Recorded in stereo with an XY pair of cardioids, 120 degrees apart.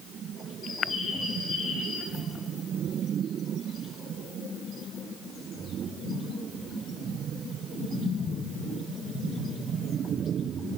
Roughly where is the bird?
Ahead left.